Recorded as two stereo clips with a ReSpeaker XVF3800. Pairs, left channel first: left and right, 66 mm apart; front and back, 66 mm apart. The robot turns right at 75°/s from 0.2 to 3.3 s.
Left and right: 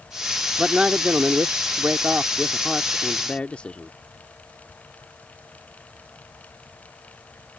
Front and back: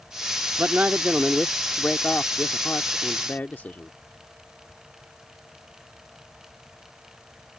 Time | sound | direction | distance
0.6 | a man speaking | 170° right | ?